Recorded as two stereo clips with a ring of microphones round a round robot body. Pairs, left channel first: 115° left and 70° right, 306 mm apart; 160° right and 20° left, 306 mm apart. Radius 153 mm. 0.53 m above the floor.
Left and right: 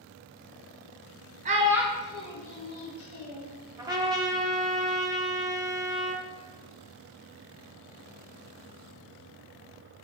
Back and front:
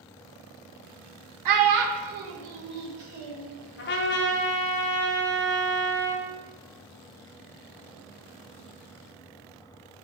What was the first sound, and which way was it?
A child speaking, straight ahead.